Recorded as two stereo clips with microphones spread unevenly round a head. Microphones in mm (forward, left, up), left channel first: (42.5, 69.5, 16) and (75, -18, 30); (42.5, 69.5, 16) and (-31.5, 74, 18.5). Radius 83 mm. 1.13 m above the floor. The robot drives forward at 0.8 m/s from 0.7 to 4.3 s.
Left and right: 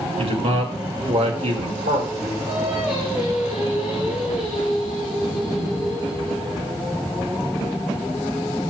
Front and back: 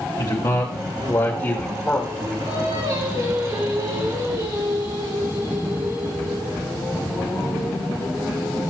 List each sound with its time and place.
0.2 s a man speaking: 55° right, 2.5 m; by 2.4 s 90° right, 2 m
2.5 s singing: 155° right, 6.5 m; by 6.8 s 160° right, 7.5 m